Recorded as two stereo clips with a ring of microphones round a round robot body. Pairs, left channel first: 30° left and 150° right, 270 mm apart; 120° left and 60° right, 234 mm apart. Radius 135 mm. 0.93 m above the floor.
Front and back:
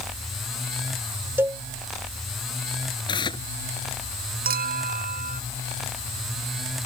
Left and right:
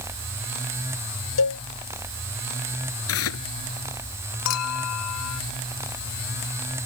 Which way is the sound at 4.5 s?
155° left.